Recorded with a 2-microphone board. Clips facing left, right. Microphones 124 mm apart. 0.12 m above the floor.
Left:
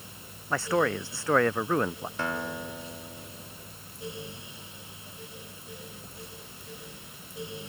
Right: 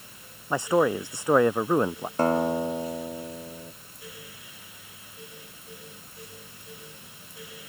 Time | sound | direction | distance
0.5 | a man speaking | 15° right (ahead or behind) | ?
2.2 | a guitar | 40° right (ahead or behind) | ?